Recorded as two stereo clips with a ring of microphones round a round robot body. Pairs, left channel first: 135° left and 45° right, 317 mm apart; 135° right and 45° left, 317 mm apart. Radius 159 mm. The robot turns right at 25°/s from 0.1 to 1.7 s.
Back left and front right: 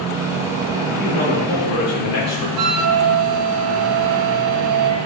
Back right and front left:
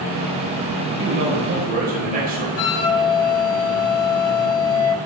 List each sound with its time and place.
1.0 s a man speaking: 90° left, 1.5 m; by 2.5 s 105° left, 1.5 m
2.6 s a flute: 85° right, 0.6 m